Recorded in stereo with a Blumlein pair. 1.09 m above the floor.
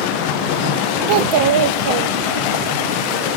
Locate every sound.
1.1 s a child speaking: 45° right, 0.6 m